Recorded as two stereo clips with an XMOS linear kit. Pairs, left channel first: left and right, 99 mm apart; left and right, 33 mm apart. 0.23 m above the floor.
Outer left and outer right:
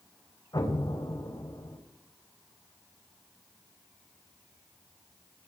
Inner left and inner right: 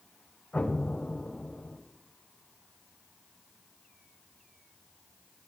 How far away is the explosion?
About 5 m.